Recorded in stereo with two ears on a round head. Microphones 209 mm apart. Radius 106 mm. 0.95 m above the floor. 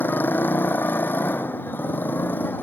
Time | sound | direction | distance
0.0 | a motorcycle | 10° left (ahead or behind) | ?